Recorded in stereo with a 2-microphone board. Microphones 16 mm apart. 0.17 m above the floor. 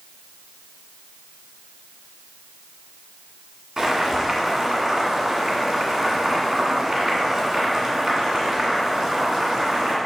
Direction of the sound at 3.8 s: 25° right (ahead or behind).